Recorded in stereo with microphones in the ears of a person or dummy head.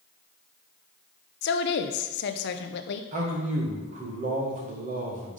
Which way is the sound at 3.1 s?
40° right (ahead or behind).